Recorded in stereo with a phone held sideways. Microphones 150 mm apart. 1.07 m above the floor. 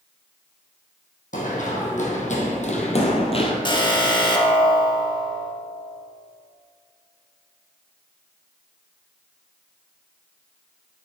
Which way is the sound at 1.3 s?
60° left (ahead or behind).